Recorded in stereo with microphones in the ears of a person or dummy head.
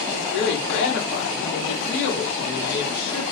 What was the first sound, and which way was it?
A woman speaking, 65° left (ahead or behind).